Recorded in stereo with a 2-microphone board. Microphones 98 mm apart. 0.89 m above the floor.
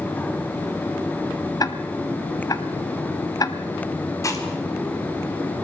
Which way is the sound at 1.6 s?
40° left (ahead or behind).